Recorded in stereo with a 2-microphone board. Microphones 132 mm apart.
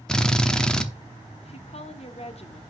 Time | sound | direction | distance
0.1 | a drill | 5° left (ahead or behind) | 0.7 m
1.4 | a woman speaking | 50° left (ahead or behind) | 1.0 m